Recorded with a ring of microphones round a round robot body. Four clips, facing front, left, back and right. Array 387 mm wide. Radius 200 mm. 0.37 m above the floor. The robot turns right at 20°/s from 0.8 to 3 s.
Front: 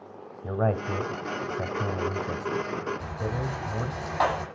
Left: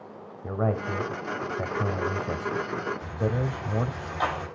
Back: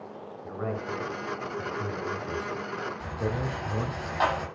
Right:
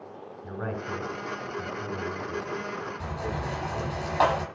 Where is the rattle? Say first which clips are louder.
Left 4 dB, back 1 dB; 75° right, 9.5 m.